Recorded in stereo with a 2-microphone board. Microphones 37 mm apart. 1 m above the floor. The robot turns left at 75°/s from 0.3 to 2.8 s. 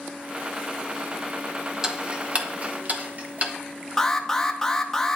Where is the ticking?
15° right (ahead or behind), 0.9 m; by 3.5 s 45° right (ahead or behind), 0.9 m.